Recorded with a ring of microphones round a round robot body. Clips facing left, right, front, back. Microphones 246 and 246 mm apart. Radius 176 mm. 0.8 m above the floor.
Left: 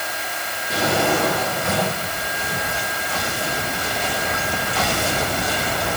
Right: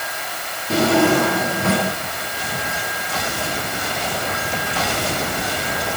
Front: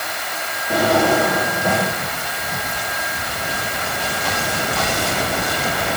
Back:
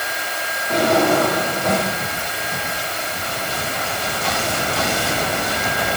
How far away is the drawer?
About 9.5 m.